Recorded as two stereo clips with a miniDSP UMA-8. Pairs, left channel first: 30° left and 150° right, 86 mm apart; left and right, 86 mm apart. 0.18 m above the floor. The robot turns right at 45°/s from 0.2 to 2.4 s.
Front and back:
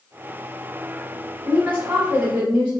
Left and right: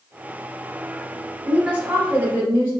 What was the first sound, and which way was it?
A woman speaking, 150° right.